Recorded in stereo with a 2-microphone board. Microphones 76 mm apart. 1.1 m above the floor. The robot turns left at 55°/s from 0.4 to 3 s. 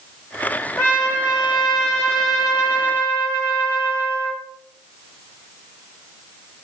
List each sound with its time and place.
0.8 s a trumpet: 160° left, 1.3 m; by 4.4 s 40° left, 1.3 m